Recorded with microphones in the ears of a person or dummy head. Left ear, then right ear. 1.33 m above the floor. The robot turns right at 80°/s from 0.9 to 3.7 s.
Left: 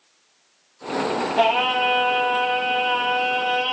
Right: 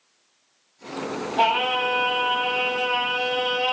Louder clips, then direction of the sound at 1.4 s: Left 1 dB; 115° left.